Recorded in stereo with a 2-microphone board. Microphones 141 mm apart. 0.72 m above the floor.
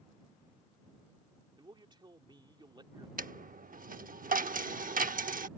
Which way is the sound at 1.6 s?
35° right (ahead or behind).